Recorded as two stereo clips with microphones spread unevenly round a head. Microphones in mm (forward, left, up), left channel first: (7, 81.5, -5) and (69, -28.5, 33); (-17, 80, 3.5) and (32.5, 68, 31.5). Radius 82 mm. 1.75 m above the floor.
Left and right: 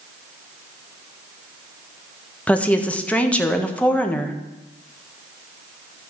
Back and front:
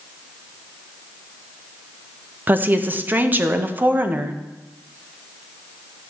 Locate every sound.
2.5 s a woman speaking: 40° left, 1.2 m